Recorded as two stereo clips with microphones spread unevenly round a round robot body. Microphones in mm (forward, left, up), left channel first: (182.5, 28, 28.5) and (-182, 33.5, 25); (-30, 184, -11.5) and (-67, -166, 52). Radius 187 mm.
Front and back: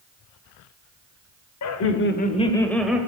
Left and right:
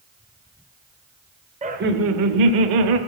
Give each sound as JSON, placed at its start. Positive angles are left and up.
{"t": 1.6, "sound": "laughter", "azimuth_deg": -20, "distance_m": 1.0}